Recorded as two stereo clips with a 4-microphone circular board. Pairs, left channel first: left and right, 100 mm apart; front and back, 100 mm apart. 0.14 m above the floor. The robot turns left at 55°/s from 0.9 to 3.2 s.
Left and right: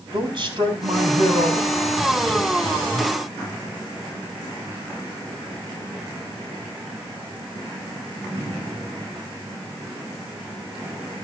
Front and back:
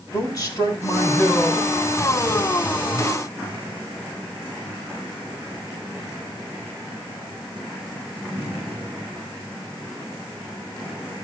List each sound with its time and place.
0.1 s a man speaking: 50° right, 3.5 m; by 3.1 s 175° right, 3.5 m